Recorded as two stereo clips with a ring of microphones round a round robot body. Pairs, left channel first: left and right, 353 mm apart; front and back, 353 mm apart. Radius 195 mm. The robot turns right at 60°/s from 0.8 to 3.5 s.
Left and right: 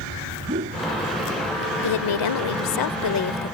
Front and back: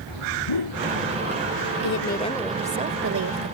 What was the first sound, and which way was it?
A whoosh, 20° right.